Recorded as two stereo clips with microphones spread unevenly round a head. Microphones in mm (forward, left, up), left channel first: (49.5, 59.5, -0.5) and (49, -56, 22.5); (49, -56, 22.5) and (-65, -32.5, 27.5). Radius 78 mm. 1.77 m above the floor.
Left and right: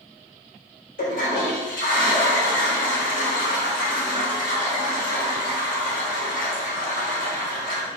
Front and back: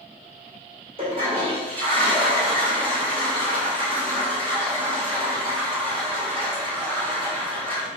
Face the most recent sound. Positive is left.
turn(degrees=115)